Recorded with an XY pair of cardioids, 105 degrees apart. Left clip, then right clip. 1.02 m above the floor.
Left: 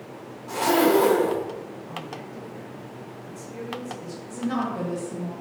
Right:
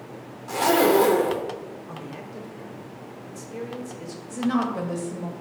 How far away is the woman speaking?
About 0.8 m.